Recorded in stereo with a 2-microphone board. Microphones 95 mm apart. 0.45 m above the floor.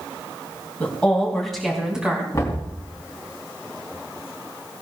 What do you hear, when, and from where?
0.8 s a woman speaking: 15° left (ahead or behind), 3.5 m; by 2.2 s 15° right (ahead or behind), 3.5 m
2.3 s knocking: 30° left (ahead or behind), 3.5 m